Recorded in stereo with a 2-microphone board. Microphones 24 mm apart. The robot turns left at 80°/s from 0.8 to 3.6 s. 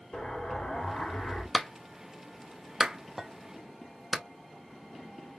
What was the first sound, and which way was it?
An explosion, 120° left.